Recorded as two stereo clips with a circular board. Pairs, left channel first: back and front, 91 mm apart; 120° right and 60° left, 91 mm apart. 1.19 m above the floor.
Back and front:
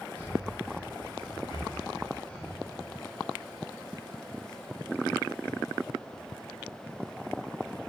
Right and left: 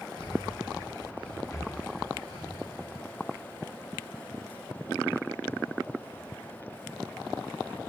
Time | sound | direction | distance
0.2 | breathing | 110° right | 4 m
1.5 | breathing | 175° right | 1.2 m